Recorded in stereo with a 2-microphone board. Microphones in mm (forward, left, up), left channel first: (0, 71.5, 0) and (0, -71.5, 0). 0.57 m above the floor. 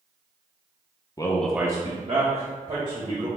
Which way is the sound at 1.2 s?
25° left (ahead or behind).